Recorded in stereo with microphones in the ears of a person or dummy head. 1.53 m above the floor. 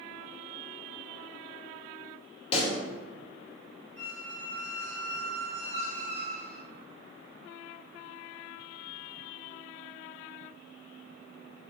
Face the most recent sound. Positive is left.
turn(degrees=-35)  # may be behind; listen again after turning